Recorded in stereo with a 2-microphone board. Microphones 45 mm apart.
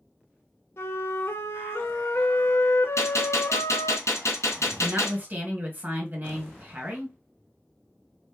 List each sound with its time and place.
0.8 s a flute: 65° left (ahead or behind), 0.8 m
3.0 s a gunshot: 85° left, 1.8 m
4.8 s a woman speaking: 40° right (ahead or behind), 1.8 m